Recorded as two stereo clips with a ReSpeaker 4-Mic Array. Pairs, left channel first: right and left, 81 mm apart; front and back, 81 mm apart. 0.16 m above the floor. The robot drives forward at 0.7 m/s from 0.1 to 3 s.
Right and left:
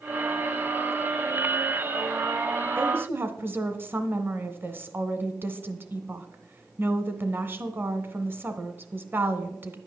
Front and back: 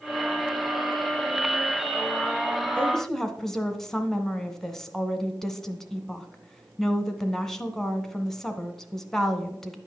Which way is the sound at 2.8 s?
60° left.